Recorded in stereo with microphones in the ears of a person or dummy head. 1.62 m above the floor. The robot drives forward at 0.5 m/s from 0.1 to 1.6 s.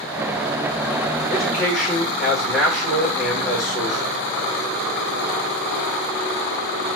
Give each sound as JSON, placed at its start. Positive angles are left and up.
{"t": 1.3, "sound": "a man speaking", "side_deg": 5, "distance_m": 5.0}